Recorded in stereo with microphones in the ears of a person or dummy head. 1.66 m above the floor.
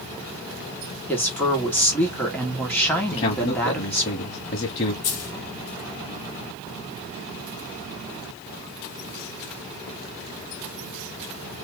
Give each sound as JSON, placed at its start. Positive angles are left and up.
{"t": 1.1, "sound": "a woman speaking", "side_deg": 10, "distance_m": 2.0}
{"t": 3.1, "sound": "a man speaking", "side_deg": 35, "distance_m": 1.2}
{"t": 5.0, "sound": "a dropped coin", "side_deg": 45, "distance_m": 1.7}